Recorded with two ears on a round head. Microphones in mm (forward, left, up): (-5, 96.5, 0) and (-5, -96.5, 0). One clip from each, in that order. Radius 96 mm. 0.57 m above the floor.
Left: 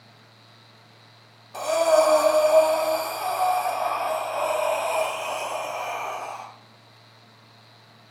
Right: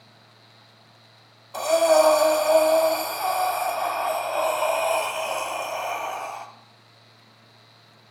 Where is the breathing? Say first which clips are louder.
Right 1 dB; 25° right (ahead or behind), 0.5 m.